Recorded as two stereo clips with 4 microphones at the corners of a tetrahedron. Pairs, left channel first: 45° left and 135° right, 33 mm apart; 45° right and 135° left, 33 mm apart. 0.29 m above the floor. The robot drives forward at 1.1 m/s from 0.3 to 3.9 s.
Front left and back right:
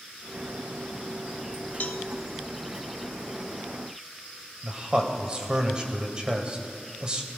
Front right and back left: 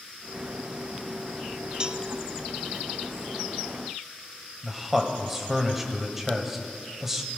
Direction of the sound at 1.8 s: 75° left.